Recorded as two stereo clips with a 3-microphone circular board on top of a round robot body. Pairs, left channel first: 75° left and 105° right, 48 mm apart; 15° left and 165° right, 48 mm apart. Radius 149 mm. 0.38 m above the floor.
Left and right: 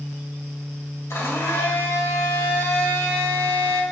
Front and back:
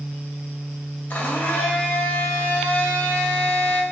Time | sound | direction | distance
1.1 | a blender | 70° left | 3 m